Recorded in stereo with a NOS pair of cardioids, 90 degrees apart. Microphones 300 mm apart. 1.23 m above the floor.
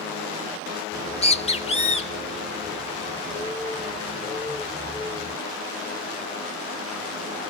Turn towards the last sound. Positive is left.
turn(degrees=20)